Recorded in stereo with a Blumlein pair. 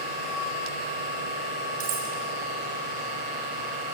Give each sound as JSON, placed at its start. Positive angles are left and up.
{"t": 0.0, "sound": "a machine running", "azimuth_deg": -45, "distance_m": 3.0}
{"t": 1.8, "sound": "cutlery clinking", "azimuth_deg": -50, "distance_m": 2.5}